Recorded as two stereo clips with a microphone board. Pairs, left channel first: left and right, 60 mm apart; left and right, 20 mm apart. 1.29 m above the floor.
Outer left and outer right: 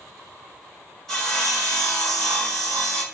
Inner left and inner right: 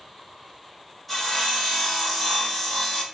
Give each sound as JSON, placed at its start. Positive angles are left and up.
{"t": 1.1, "sound": "sawing", "side_deg": 10, "distance_m": 1.3}